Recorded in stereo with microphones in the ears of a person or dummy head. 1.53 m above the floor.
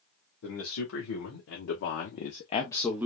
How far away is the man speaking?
About 1.6 m.